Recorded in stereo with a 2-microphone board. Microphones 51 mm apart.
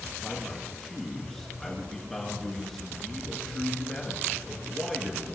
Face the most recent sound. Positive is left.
turn(degrees=5)  # may be behind; listen again after turning